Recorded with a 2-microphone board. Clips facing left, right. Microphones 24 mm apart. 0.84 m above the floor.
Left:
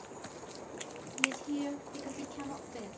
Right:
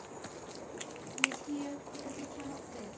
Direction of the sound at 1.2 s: 25° left (ahead or behind).